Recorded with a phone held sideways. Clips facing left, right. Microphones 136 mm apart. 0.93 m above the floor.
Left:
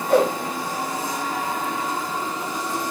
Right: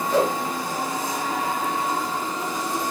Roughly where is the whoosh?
Left.